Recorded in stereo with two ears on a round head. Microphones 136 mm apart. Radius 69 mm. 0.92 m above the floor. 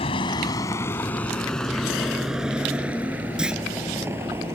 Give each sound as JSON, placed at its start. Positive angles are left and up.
{"t": 0.0, "sound": "a vehicle", "side_deg": 35}
{"t": 3.4, "sound": "a clunk", "side_deg": -5}